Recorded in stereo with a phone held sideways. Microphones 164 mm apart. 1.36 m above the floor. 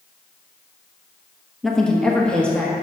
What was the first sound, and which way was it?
A woman speaking, 5° left (ahead or behind).